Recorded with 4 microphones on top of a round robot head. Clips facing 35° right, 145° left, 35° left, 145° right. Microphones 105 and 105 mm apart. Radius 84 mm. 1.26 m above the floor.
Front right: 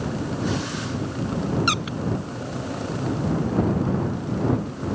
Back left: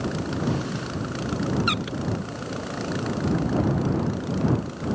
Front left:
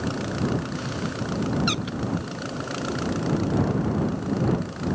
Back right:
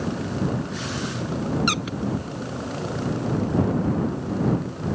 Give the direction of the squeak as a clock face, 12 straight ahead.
3 o'clock.